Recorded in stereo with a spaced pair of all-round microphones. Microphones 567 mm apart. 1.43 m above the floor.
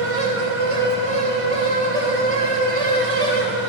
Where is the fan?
65° right (ahead or behind), 1.3 m.